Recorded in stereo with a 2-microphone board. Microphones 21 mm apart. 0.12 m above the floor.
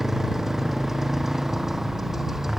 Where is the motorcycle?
15° right (ahead or behind).